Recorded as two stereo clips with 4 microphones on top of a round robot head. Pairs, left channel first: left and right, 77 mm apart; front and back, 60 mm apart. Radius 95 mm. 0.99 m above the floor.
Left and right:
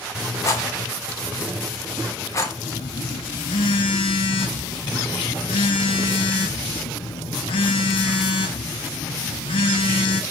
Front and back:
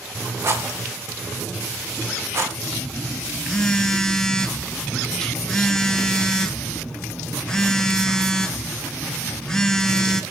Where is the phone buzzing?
75° left, 0.7 m.